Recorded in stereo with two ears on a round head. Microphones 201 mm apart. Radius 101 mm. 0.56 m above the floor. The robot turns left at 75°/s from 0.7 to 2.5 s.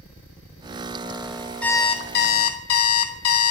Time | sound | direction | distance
1.6 | an alarm clock | 175° left | 0.6 m